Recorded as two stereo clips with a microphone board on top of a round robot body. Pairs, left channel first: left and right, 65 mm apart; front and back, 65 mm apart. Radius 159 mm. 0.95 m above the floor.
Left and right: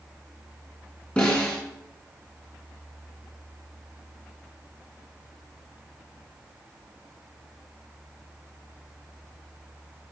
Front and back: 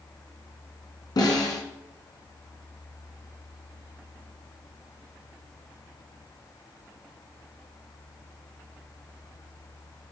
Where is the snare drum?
15° left, 2.5 m.